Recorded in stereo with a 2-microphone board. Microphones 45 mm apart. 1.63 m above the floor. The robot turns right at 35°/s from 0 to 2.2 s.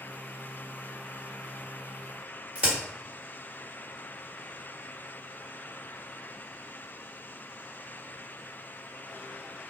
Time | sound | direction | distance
2.5 | a crack | 30° right (ahead or behind) | 1.6 m